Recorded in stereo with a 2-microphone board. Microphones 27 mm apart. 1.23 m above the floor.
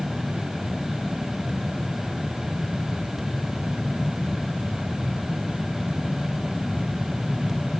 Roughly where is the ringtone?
No ringtone in this recording.